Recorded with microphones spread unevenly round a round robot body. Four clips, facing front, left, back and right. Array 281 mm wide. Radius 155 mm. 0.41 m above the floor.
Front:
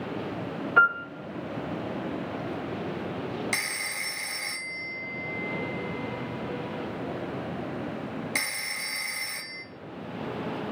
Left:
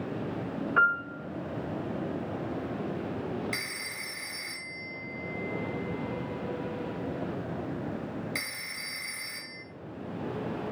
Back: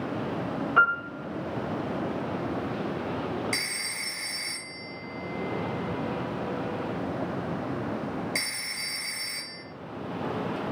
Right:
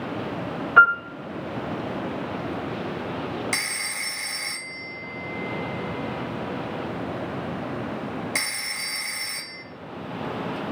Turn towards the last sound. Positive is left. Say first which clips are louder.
# right 7 dB, front 1 dB
turn(degrees=-45)